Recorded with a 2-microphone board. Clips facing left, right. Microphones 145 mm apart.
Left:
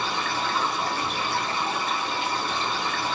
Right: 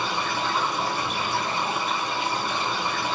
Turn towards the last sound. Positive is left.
turn(degrees=-15)  # may be behind; listen again after turning